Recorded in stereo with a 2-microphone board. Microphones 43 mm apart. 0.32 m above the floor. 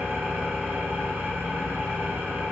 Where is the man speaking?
I don't hear a man speaking.